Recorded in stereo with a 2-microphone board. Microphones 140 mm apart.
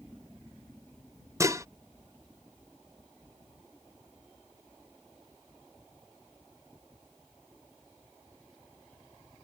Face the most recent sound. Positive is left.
turn(degrees=-20)  # may be behind; listen again after turning